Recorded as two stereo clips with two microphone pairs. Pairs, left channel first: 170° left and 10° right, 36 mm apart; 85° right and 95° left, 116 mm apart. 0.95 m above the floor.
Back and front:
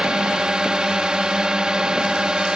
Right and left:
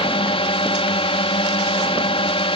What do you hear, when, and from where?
0.0 s a drone: 70° right